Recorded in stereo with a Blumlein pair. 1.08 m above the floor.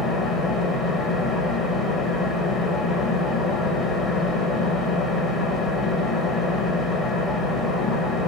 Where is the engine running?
5° left, 0.9 m.